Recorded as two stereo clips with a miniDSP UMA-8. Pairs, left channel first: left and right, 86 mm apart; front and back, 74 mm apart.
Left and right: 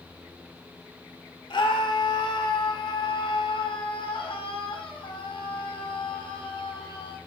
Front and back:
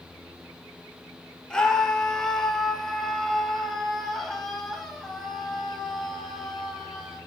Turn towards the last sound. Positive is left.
turn(degrees=90)